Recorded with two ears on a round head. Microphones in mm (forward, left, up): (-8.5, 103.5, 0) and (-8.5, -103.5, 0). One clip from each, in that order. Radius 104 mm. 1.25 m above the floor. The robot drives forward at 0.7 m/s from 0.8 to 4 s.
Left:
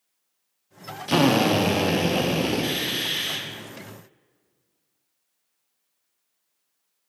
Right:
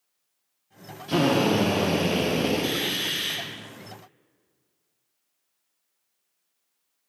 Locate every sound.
1.1 s a drill: 40° left (ahead or behind), 0.6 m; by 3.4 s 10° left (ahead or behind), 2.0 m